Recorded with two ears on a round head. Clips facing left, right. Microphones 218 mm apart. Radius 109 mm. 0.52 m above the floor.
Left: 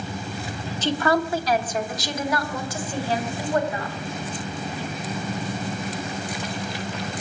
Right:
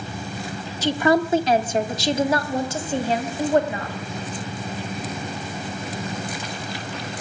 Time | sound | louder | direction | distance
0.8 | a woman speaking | right 3 dB | 10° right (ahead or behind) | 0.8 m